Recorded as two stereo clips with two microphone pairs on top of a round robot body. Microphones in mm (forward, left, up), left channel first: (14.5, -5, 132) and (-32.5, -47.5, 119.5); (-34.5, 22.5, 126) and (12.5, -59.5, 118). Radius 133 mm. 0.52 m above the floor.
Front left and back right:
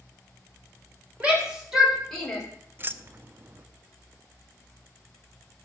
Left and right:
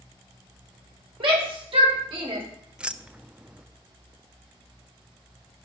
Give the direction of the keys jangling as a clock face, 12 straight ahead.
4 o'clock.